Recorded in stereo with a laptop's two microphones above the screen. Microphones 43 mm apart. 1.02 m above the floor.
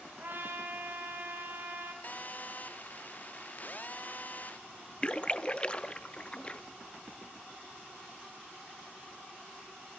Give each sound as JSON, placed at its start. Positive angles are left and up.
{"t": 0.2, "sound": "a trumpet", "side_deg": -65, "distance_m": 5.0}
{"t": 2.0, "sound": "a phone buzzing", "side_deg": 40, "distance_m": 0.7}
{"t": 5.0, "sound": "a splash", "side_deg": 25, "distance_m": 1.0}